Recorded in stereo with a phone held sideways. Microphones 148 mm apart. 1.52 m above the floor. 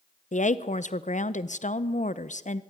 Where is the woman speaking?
55° left (ahead or behind), 0.7 m.